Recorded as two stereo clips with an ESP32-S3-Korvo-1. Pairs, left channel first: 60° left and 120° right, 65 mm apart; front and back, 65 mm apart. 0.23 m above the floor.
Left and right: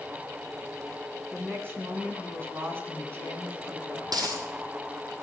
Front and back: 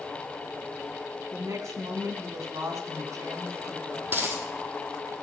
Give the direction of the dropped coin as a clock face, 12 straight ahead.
4 o'clock.